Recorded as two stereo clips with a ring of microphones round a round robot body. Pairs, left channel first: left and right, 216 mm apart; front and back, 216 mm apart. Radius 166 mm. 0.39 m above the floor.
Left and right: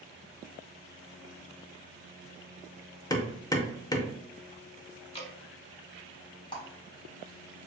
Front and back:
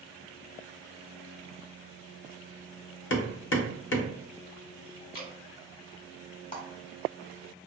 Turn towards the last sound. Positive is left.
turn(degrees=30)